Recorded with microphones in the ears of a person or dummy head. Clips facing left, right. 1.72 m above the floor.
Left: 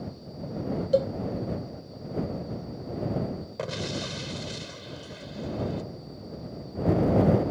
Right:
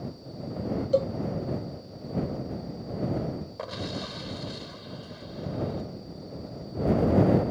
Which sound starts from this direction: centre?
A cowbell, at 0.9 s.